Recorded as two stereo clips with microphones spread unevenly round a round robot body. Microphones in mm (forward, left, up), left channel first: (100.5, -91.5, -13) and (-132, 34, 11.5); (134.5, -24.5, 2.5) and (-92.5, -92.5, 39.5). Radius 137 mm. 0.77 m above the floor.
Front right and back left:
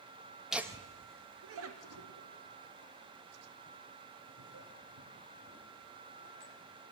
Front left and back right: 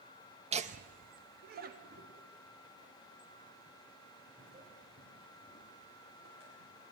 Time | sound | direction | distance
0.5 | laughter | 110° right | 0.7 m